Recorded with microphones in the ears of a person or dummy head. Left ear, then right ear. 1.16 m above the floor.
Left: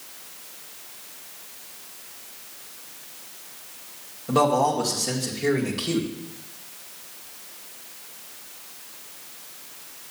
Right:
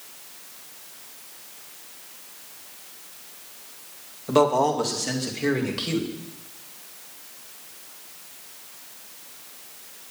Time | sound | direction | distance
4.3 | a man speaking | 55° right (ahead or behind) | 1.9 m